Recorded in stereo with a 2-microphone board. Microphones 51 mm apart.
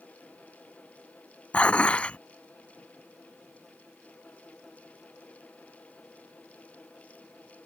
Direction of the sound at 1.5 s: 25° left (ahead or behind).